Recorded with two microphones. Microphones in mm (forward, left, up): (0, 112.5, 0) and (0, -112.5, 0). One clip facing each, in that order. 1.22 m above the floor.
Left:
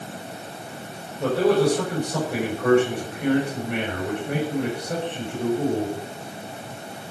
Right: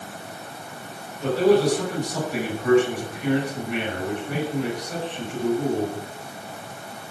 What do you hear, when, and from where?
1.2 s a man speaking: 65° left (ahead or behind), 6.5 m